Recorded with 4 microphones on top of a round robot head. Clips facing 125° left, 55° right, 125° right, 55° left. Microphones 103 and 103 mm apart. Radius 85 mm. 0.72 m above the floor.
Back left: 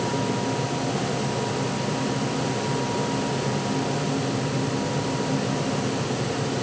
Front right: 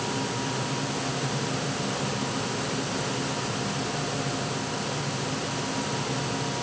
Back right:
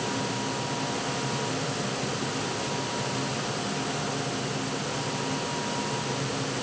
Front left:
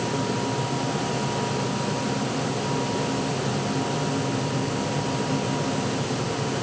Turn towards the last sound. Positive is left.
No sound to turn to.